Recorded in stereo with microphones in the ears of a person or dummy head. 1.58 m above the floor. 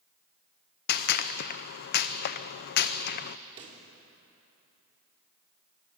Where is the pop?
40° right (ahead or behind), 3 m.